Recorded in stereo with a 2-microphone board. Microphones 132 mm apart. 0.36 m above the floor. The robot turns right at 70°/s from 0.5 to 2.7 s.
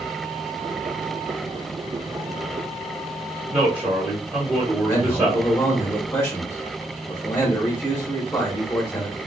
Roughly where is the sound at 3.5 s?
Centre.